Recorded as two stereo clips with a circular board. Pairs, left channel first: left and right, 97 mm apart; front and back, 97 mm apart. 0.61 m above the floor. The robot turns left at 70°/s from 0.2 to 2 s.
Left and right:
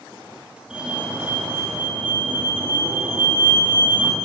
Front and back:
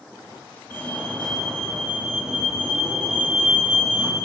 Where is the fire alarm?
25° right, 1.6 m; by 4.1 s 115° right, 1.6 m.